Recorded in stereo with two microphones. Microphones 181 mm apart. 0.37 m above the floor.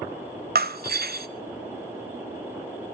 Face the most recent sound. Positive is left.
turn(degrees=-60)  # may be behind; listen again after turning